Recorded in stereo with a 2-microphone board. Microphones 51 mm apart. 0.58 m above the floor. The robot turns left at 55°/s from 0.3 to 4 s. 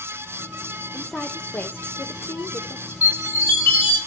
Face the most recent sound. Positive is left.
turn(degrees=35)